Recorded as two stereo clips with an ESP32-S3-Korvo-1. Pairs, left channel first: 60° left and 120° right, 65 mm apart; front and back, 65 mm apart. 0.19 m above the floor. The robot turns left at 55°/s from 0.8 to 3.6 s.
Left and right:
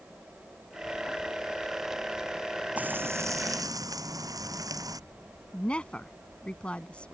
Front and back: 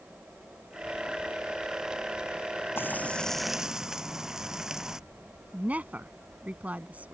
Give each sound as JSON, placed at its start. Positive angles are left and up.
{"t": 2.8, "sound": "frying", "azimuth_deg": -55}
{"t": 5.5, "sound": "a woman speaking", "azimuth_deg": 125}